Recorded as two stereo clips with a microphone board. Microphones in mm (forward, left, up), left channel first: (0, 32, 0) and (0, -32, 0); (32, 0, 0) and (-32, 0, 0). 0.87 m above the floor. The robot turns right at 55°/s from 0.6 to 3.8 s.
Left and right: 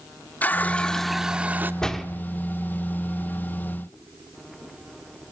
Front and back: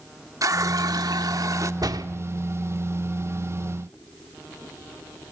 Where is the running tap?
150° left, 1.1 m; by 1.7 s 145° right, 1.1 m.